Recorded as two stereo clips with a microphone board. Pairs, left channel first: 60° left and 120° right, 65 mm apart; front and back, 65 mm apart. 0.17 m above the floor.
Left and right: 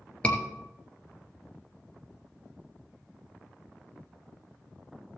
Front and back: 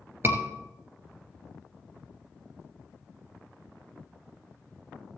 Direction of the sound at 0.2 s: 130° left.